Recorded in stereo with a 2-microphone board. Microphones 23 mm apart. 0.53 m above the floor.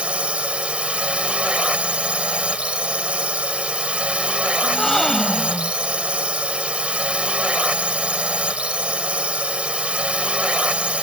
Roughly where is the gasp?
Centre.